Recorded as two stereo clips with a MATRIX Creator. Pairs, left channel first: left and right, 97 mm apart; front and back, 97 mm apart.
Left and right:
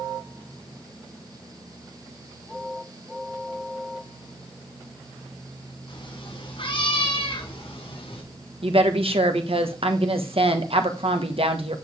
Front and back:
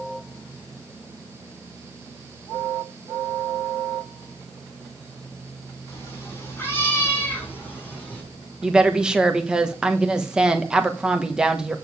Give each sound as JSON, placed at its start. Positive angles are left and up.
{"t": 5.9, "sound": "a cat meowing", "azimuth_deg": 60, "distance_m": 5.0}
{"t": 8.6, "sound": "a woman speaking", "azimuth_deg": -100, "distance_m": 1.3}